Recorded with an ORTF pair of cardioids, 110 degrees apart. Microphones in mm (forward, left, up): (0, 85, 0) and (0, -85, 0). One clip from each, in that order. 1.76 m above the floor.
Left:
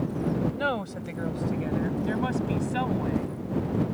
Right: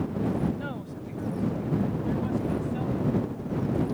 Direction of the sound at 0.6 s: 65° left.